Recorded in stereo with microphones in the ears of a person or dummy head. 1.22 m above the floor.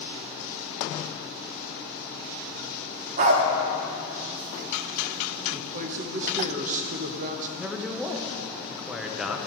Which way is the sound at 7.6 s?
5° right (ahead or behind).